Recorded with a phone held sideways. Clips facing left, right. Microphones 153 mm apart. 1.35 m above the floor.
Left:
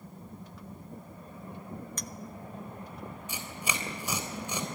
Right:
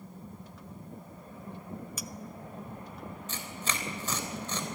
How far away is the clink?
About 0.7 m.